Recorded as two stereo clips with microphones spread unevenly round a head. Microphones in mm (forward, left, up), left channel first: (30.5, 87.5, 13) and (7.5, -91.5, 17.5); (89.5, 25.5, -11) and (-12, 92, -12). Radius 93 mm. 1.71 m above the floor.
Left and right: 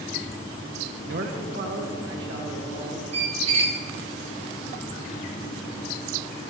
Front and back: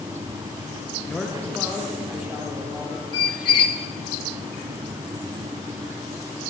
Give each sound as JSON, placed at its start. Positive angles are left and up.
{"t": 1.0, "sound": "a man speaking", "azimuth_deg": -110, "distance_m": 0.7}
{"t": 3.1, "sound": "a squeak", "azimuth_deg": -65, "distance_m": 1.1}